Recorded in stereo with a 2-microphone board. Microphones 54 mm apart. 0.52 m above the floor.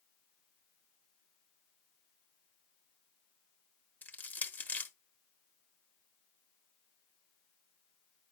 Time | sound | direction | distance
4.0 | crushing | 30° left (ahead or behind) | 1.0 m